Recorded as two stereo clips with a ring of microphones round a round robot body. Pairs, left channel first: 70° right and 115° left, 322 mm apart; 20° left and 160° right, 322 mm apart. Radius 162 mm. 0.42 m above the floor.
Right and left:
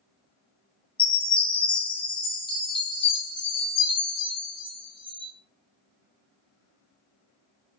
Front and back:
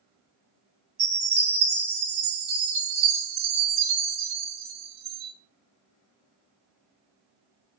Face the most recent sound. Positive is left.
turn(degrees=-145)